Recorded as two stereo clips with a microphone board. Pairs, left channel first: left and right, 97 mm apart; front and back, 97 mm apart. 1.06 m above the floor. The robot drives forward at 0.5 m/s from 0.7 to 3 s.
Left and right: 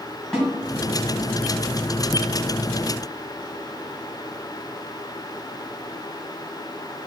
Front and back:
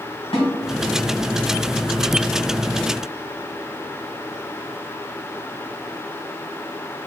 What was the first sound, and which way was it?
A snare drum, 5° right.